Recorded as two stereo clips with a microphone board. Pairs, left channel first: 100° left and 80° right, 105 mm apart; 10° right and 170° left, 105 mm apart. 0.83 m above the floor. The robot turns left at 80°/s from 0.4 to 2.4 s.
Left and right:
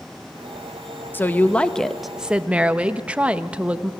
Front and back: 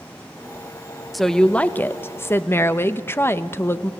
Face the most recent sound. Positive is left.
turn(degrees=-20)